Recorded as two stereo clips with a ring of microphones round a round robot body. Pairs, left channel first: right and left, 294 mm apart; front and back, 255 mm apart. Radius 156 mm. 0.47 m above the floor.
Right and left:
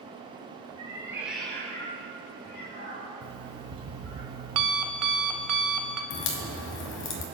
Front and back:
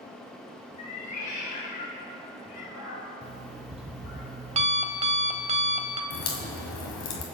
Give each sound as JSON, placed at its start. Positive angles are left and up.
{"t": 0.8, "sound": "a cat meowing", "azimuth_deg": 20, "distance_m": 3.0}
{"t": 3.2, "sound": "an alarm clock", "azimuth_deg": 115, "distance_m": 1.3}
{"t": 6.1, "sound": "a crack", "azimuth_deg": -40, "distance_m": 1.6}